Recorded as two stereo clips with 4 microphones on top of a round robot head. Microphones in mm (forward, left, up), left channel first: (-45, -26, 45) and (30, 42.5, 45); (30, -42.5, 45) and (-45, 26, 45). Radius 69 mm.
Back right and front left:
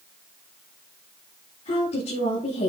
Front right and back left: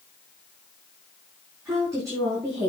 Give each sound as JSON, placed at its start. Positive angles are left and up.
{"t": 1.6, "sound": "a woman speaking", "azimuth_deg": -160, "distance_m": 7.5}